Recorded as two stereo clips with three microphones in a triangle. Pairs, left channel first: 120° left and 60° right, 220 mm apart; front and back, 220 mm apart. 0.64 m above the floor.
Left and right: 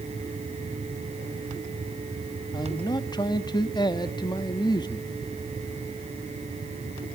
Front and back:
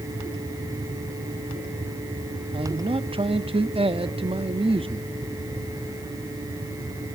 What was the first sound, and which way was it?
A man speaking, 160° left.